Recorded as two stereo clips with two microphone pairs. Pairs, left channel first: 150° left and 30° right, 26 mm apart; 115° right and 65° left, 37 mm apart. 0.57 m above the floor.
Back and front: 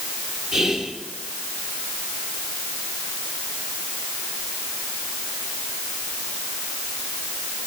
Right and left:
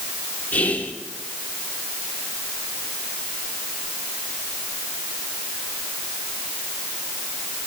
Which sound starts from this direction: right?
Whispering, at 0.5 s.